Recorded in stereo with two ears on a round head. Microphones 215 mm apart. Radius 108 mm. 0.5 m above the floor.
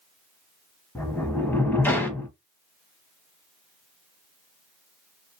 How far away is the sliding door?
About 0.7 m.